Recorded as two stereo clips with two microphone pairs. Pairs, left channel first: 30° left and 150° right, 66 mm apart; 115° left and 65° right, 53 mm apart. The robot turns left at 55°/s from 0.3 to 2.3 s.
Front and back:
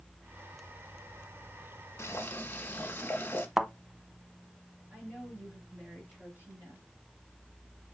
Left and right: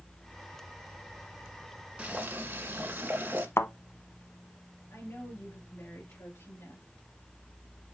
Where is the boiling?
10° right, 1.6 m; by 3.5 s 25° right, 1.6 m.